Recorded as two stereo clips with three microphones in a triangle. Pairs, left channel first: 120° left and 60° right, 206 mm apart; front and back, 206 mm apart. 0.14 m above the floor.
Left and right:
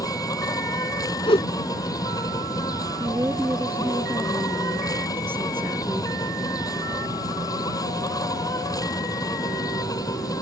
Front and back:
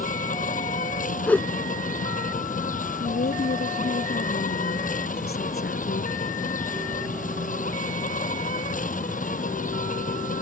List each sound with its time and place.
0.0 s an insect: 50° left
1.3 s a whoosh: 75° left
3.0 s a woman speaking: 20° left